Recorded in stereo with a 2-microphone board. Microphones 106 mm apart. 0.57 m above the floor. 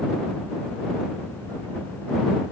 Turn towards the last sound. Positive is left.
No sound to turn to.